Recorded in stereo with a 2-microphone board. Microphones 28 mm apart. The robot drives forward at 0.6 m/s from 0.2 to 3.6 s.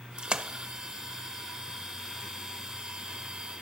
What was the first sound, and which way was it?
A splash, 30° right (ahead or behind).